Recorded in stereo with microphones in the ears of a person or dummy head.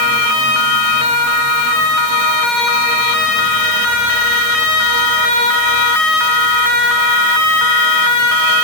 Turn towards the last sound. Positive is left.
No sound to turn to.